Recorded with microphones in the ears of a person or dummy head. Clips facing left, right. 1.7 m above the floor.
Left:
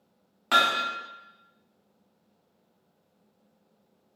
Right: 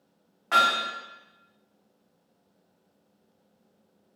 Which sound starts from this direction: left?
Hammering, at 0.5 s.